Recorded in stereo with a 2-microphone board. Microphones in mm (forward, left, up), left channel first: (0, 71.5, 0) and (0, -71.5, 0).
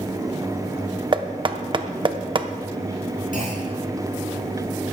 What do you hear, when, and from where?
1.1 s knocking: 35° right (ahead or behind), 0.7 m
3.3 s a clunk: 85° left, 4 m